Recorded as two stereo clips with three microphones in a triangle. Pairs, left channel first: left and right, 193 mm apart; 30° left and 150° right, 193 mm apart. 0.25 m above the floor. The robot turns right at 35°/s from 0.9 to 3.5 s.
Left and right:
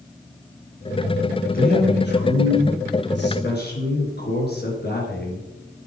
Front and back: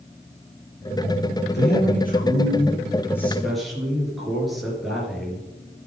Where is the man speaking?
50° left, 4.5 m; by 5.5 s 120° left, 4.5 m.